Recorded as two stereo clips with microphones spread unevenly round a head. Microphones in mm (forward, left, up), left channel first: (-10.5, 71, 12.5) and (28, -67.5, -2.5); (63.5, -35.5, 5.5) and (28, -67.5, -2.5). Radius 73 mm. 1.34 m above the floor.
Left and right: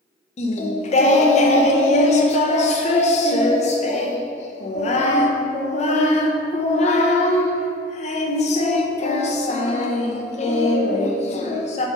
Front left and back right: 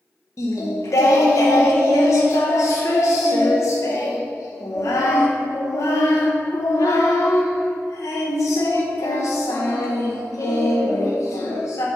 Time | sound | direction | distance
0.4 | singing | 60° left | 0.8 m